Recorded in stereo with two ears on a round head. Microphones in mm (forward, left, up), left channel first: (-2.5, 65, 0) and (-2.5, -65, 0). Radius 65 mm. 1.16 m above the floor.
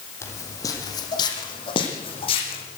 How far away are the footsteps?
About 3.5 m.